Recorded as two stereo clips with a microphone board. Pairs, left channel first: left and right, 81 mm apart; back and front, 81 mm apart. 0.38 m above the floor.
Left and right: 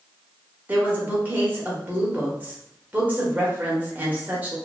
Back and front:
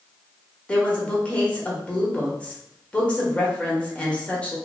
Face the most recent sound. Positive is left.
turn(degrees=-125)